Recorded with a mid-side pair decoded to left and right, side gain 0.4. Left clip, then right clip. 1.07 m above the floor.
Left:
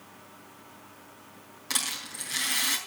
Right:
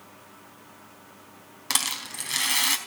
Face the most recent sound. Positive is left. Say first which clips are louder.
# right 4 dB
turn(degrees=-55)